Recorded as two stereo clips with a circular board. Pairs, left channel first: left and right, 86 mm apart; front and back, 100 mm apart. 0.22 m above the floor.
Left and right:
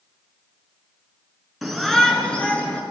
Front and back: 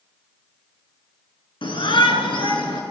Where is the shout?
Straight ahead, 3 m; by 2.8 s 20° left, 4 m.